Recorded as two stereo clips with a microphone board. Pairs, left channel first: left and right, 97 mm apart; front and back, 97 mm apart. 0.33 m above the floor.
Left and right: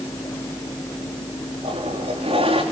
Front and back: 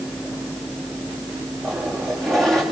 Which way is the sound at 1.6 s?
85° right.